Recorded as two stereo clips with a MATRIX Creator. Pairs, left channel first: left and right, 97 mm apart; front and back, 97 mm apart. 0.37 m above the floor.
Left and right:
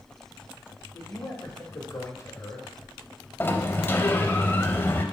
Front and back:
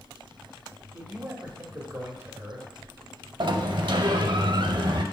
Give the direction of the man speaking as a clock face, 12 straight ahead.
8 o'clock.